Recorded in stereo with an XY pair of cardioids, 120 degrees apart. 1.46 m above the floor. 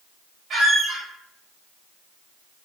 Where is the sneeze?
No sneeze in this recording.